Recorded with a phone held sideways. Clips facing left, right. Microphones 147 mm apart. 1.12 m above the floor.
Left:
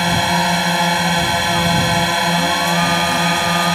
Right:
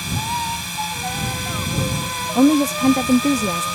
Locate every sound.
0.0 s a drone: 75° left (ahead or behind)
2.4 s a woman speaking: 80° right